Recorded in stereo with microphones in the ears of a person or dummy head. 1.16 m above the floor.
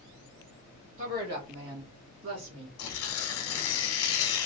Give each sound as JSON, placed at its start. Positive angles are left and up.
{"t": 1.0, "sound": "a woman speaking", "side_deg": -50, "distance_m": 1.6}
{"t": 2.8, "sound": "tearing paper", "side_deg": 75, "distance_m": 0.8}